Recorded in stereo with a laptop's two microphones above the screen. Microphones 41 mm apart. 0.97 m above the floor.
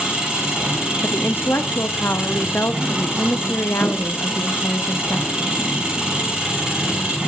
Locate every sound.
0.0 s an engine running: 20° right (ahead or behind), 6 m
1.0 s a woman speaking: 60° left (ahead or behind), 1.3 m